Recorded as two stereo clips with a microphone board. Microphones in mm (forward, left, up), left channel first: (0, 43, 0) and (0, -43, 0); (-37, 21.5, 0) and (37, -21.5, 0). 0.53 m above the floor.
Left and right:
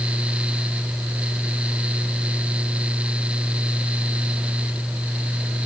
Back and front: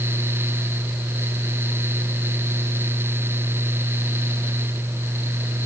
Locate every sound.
Only background noise.